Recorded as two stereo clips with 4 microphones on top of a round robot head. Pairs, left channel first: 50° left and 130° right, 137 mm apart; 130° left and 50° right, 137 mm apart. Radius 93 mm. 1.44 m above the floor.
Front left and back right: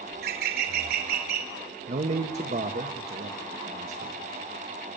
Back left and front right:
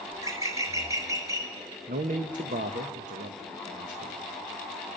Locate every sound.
0.1 s a bird: 120° right, 3 m
1.9 s a man speaking: 85° right, 1.3 m